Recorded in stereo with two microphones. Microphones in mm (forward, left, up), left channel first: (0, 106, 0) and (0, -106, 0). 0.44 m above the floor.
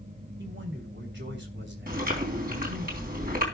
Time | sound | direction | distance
0.4 | a man speaking | 60° right (ahead or behind) | 3 m
1.9 | chewing | 45° right (ahead or behind) | 3.5 m